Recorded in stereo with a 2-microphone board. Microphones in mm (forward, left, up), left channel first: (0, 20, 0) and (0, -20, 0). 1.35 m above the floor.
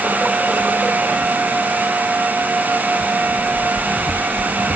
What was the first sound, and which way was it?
Only background noise.